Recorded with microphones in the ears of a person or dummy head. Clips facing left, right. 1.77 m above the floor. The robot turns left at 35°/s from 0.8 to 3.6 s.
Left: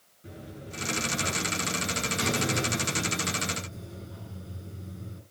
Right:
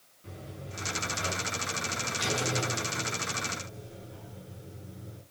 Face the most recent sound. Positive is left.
turn(degrees=70)